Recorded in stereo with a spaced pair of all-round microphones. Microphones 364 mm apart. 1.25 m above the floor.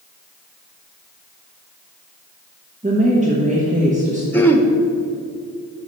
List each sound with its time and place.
2.8 s a woman speaking: 20° right (ahead or behind), 1.0 m
4.3 s throat clearing: 5° left (ahead or behind), 0.6 m